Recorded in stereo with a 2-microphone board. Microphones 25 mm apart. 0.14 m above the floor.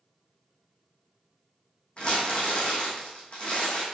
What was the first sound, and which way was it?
Crumpling, 40° left (ahead or behind).